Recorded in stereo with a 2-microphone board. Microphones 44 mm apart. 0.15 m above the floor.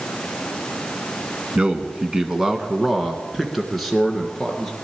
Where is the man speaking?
25° right (ahead or behind), 1.1 m; by 4.8 s 5° left (ahead or behind), 1.8 m.